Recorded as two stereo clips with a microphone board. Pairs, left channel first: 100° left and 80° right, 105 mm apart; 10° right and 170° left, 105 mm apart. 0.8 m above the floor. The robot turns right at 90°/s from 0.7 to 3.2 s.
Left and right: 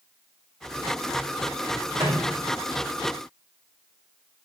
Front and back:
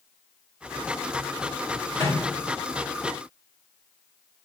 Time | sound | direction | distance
2.0 | a microwave | 50° right | 1.6 m